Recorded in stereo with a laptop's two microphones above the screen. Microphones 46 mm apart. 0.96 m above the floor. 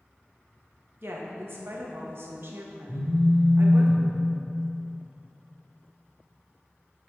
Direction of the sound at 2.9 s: 60° left (ahead or behind).